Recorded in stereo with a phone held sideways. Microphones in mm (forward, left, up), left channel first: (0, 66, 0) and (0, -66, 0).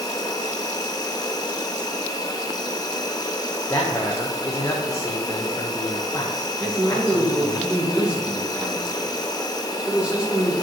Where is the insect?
30° left (ahead or behind), 0.9 m.